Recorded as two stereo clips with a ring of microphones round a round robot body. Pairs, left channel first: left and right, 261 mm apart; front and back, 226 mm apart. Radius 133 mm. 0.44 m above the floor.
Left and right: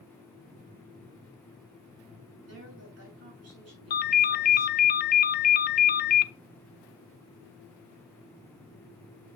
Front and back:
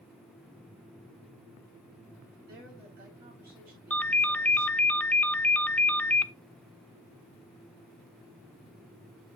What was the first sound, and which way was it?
A woman speaking, 125° right.